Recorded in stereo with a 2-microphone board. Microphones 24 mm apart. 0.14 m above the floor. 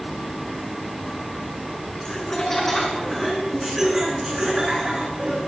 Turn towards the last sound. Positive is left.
turn(degrees=-40)  # may be behind; listen again after turning